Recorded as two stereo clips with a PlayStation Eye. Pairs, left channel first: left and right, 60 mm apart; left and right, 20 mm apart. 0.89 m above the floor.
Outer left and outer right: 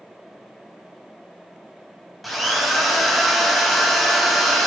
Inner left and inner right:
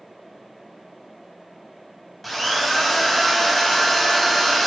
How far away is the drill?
About 0.6 m.